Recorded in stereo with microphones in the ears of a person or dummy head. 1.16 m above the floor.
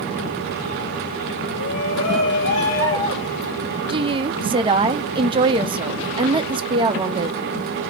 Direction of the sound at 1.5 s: 60° left (ahead or behind).